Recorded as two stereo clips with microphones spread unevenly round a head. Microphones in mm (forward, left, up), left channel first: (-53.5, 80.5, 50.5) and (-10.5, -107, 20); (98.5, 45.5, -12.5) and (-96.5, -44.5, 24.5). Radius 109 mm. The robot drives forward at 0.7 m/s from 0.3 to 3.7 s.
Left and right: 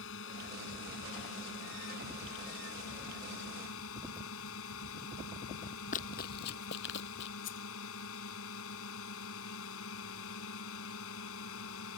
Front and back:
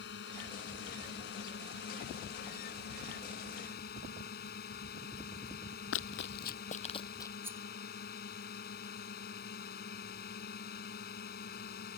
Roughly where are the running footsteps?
Ahead left.